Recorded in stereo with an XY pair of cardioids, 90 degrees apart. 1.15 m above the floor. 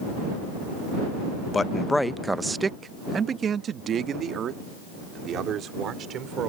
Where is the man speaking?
35° left; by 6.5 s 80° right.